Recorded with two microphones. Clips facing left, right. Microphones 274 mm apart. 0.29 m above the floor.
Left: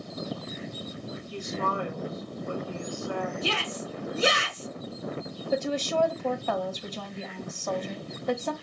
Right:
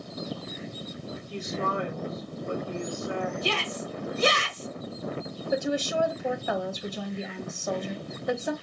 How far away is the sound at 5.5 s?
About 1.4 m.